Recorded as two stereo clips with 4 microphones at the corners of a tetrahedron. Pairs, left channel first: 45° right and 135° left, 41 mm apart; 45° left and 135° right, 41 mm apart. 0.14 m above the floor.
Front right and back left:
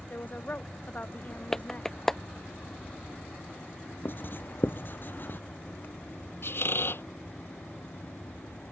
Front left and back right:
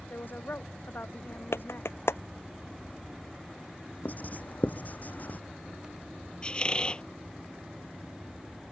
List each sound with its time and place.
0.1 s a woman speaking: 5° left; by 1.9 s 10° left
1.5 s a clap: 35° left
4.0 s writing: 5° right
6.4 s a squeak: 20° right